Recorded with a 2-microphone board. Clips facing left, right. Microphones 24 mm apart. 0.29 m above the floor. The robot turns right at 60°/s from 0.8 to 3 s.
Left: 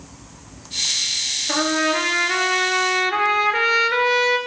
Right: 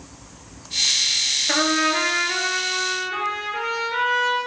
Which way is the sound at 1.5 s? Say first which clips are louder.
Left 2 dB; 30° right.